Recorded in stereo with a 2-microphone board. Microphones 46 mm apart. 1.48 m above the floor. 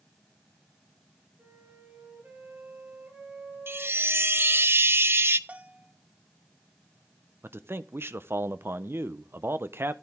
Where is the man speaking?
55° right (ahead or behind), 0.8 m.